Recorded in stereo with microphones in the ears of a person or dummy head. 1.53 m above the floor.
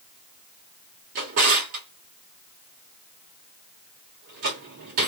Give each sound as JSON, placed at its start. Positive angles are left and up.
{"t": 1.1, "sound": "a drawer", "side_deg": -35, "distance_m": 1.5}